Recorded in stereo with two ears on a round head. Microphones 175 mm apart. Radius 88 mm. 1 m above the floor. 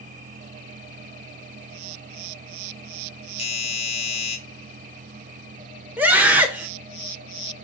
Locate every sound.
3.4 s a doorbell: 30° left (ahead or behind), 1.4 m
6.0 s a scream: 10° right (ahead or behind), 1.6 m